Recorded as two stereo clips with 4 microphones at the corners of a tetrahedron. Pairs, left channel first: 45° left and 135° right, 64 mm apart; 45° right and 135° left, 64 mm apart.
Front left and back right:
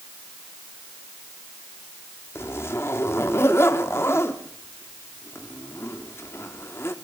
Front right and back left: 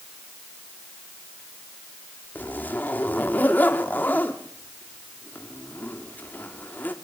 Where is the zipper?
10° left, 1.9 m.